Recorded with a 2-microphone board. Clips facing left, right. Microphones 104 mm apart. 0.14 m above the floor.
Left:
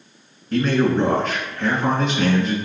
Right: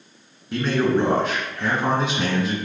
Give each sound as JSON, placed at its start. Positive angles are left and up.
{"t": 0.5, "sound": "a man speaking", "side_deg": -5, "distance_m": 1.7}